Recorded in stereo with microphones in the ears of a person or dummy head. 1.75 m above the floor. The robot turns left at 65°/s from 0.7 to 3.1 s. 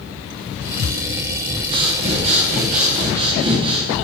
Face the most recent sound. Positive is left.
turn(degrees=-130)